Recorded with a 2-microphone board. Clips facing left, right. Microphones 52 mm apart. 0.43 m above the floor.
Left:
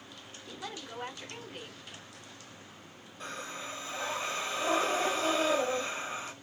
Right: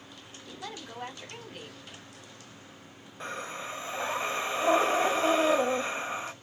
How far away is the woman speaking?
About 1.5 m.